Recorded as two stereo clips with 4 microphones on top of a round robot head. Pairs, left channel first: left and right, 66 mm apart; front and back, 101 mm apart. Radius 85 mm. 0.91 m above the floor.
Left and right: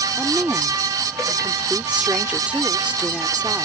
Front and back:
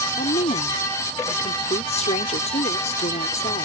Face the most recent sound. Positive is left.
turn(degrees=-20)